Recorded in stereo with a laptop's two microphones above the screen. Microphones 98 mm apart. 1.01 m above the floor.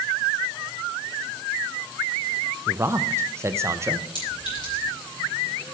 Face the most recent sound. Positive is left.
turn(degrees=50)  # may be behind; listen again after turning